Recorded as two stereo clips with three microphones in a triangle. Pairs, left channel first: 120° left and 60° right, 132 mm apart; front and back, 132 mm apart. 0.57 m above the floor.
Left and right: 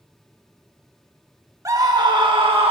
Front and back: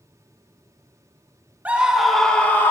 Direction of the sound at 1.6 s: 110° right.